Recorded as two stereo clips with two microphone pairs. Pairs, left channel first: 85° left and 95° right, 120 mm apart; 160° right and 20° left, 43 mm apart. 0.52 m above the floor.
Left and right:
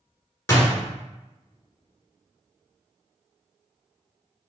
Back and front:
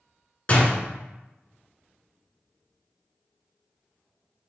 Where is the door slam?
150° left, 1.2 m.